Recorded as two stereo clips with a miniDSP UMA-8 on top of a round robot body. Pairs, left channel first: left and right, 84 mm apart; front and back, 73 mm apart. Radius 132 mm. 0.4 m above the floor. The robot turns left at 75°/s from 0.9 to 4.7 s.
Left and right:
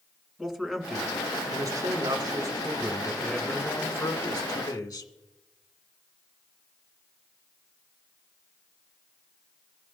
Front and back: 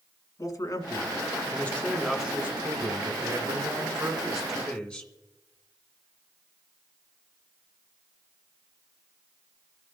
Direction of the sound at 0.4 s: 5° right.